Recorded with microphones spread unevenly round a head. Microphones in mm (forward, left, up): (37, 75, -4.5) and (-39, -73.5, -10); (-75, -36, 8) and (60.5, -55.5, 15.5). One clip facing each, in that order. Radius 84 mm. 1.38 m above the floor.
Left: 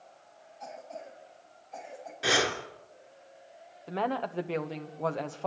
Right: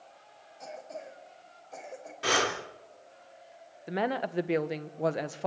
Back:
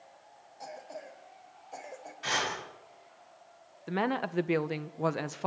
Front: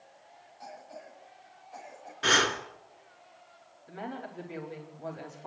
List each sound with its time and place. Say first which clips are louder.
0.6 s a cough: right 1 dB, back 3 dB; 145° right, 5.5 m
2.2 s breathing: left 1 dB, front 6 dB; 25° right, 2.5 m
3.9 s a woman speaking: right 1 dB, back 9 dB; 170° left, 1.2 m